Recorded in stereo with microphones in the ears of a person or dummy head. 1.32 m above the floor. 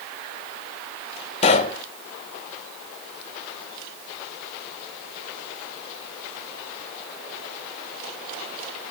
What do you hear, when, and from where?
1.4 s a pop: 30° left (ahead or behind), 0.6 m